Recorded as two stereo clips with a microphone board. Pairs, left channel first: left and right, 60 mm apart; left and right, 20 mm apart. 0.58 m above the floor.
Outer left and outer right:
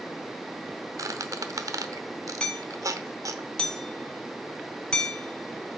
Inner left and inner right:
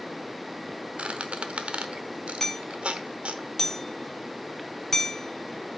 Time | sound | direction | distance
1.0 | a squeak | 70° right (ahead or behind) | 0.9 m
2.4 | hammering | 15° left (ahead or behind) | 1.4 m